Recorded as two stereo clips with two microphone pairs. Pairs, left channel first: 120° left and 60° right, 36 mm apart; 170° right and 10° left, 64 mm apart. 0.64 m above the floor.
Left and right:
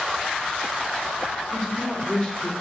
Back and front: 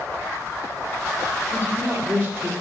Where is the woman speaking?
60° left, 2.0 m.